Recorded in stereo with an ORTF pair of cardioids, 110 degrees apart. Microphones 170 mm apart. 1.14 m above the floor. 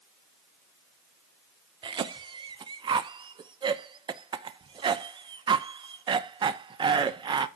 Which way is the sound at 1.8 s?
30° right.